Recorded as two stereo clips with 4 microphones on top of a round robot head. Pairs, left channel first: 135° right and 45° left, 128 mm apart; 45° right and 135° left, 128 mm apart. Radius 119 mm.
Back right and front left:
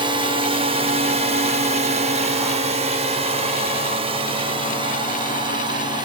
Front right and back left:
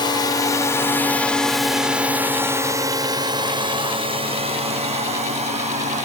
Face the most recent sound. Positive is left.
turn(degrees=105)